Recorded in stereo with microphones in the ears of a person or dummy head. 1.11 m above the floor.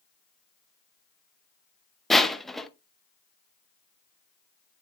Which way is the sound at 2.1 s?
5° left (ahead or behind).